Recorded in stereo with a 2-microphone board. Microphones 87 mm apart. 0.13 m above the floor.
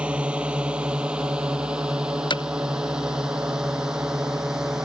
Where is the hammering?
60° left (ahead or behind).